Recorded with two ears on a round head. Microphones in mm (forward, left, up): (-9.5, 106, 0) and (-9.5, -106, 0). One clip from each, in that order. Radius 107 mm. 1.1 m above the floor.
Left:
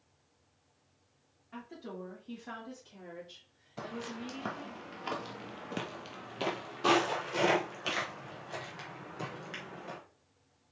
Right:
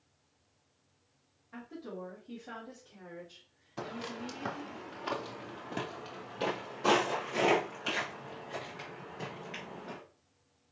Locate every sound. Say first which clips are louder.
1.5 s a woman speaking: right 1 dB; 75° left (ahead or behind), 2.5 m; by 4.8 s 35° left (ahead or behind), 3 m
3.8 s footsteps: right 1 dB; 5° right (ahead or behind), 1.3 m; by 10.0 s 30° left (ahead or behind), 3 m